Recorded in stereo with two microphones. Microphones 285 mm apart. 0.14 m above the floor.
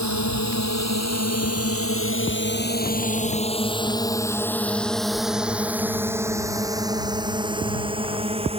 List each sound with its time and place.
0.0 s a drone: 75° left (ahead or behind); by 8.6 s 20° right (ahead or behind)